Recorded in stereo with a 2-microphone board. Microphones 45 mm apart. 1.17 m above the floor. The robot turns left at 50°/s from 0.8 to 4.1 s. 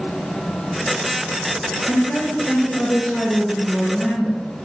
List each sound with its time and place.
1.9 s a woman speaking: 120° left, 0.7 m; by 4.4 s 10° left, 0.7 m